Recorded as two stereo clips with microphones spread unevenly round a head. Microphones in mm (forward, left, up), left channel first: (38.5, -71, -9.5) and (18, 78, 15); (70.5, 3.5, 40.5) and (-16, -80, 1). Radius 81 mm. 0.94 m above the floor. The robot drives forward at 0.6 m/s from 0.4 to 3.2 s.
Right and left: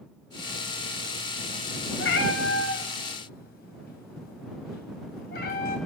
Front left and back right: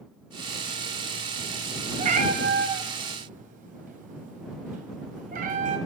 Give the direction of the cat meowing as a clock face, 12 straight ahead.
4 o'clock.